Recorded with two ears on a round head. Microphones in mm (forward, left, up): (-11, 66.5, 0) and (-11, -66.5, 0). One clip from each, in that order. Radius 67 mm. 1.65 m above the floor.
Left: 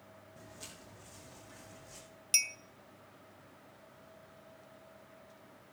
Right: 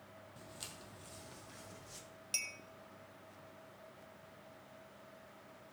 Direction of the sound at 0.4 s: 55° right (ahead or behind).